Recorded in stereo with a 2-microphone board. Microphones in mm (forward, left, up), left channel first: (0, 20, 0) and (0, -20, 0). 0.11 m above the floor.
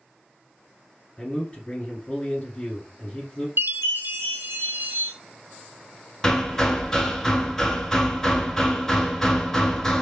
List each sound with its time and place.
1.2 s a man speaking: 30° left (ahead or behind), 1.4 m
3.6 s a chime: 60° right (ahead or behind), 0.6 m
6.2 s hammering: 15° left (ahead or behind), 0.6 m